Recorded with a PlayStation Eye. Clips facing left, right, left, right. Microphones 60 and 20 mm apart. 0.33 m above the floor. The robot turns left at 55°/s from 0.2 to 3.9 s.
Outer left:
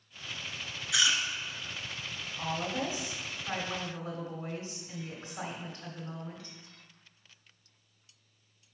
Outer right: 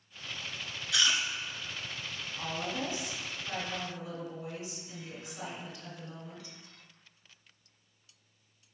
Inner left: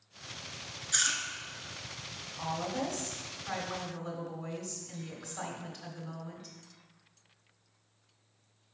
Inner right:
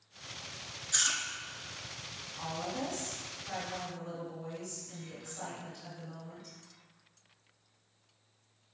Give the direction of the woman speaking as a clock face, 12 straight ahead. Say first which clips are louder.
Outer left 2 dB, inner left 3 dB; 6 o'clock.